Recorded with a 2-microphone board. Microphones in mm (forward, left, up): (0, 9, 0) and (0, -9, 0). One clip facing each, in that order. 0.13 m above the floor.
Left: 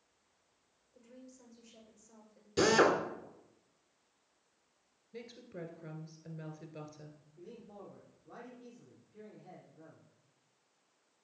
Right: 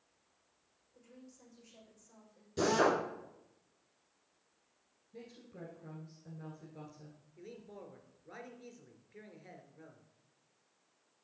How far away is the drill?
About 1.8 m.